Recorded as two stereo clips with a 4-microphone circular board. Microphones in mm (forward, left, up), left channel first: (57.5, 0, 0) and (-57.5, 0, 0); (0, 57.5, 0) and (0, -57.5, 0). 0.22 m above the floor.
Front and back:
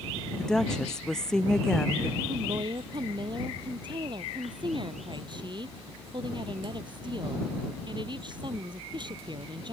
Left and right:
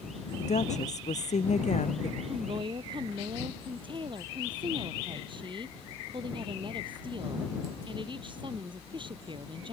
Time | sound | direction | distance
0.4 | a woman speaking | 85° left | ?
2.3 | a woman speaking | 135° right | ?